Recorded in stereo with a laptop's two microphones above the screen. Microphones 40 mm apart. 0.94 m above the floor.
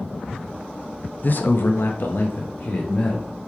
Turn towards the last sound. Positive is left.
turn(degrees=45)  # may be behind; listen again after turning